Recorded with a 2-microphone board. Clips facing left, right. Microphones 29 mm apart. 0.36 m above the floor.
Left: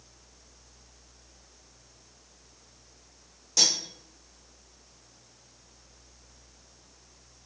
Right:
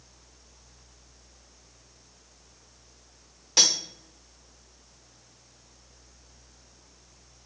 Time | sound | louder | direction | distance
3.6 | cutlery clinking | right 2 dB | 50° right (ahead or behind) | 0.8 m